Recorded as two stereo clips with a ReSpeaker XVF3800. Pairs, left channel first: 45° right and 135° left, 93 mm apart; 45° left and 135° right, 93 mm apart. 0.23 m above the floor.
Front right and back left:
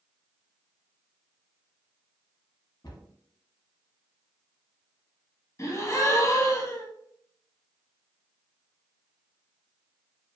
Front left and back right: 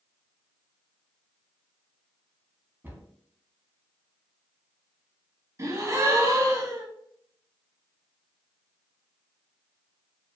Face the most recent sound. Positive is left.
turn(degrees=-90)